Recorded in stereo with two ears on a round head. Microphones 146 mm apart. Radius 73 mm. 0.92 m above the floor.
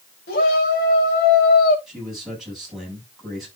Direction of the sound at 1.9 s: Centre (ahead or behind).